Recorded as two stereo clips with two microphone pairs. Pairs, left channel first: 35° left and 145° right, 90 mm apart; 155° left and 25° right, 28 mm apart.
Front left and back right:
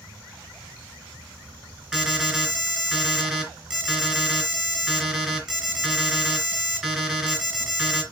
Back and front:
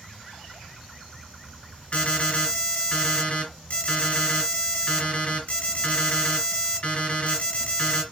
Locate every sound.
0.0 s an insect: 100° right, 1.8 m
1.9 s an alarm: 135° left, 3.5 m